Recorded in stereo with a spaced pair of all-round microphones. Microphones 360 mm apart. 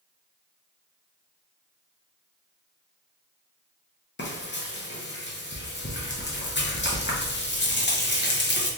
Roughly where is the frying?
Left.